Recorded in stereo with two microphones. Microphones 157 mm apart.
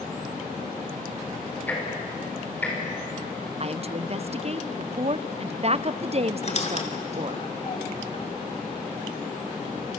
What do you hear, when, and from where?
1.7 s ticking: 10° left (ahead or behind), 6 m
3.6 s a woman speaking: 45° right (ahead or behind), 0.6 m
6.4 s a squeak: 50° left (ahead or behind), 2.5 m